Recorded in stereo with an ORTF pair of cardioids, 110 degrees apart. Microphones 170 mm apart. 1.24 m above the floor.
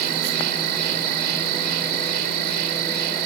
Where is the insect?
70° right.